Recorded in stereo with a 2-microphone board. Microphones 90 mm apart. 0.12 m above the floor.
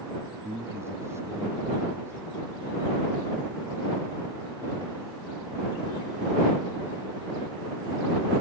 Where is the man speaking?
30° right (ahead or behind).